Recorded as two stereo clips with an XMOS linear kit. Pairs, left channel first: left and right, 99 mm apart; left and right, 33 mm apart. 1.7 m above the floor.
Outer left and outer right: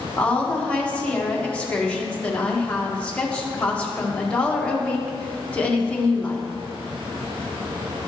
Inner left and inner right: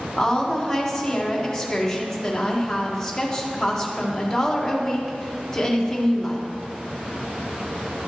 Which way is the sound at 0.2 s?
15° left (ahead or behind).